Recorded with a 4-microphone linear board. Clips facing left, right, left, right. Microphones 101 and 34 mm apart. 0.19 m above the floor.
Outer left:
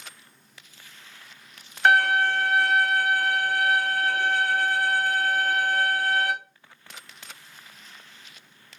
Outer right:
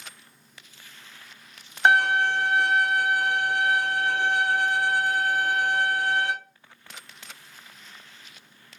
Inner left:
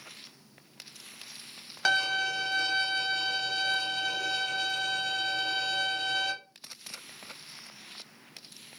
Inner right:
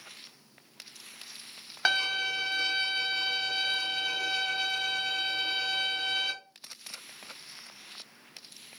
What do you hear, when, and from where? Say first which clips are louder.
1.9 s a violin: even, inner left 1 dB; 20° right (ahead or behind), 0.5 m